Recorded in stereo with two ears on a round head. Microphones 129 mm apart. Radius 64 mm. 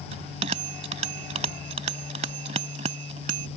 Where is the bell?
50° right (ahead or behind).